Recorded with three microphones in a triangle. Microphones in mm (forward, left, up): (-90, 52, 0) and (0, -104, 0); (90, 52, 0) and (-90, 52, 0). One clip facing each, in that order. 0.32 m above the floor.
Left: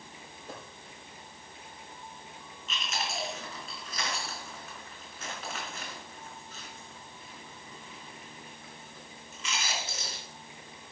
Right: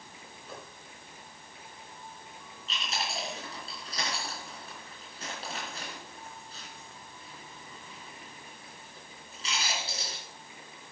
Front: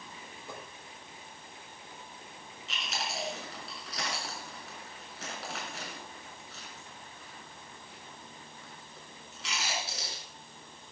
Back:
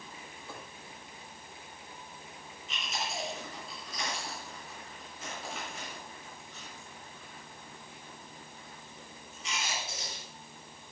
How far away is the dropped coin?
About 6 m.